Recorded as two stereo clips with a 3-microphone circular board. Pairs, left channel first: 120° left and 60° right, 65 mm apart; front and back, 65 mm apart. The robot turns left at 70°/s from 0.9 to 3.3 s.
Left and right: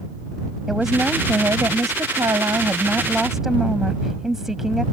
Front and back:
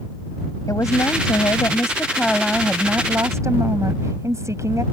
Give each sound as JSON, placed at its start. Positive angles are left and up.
{"t": 0.7, "sound": "a woman speaking", "azimuth_deg": 25}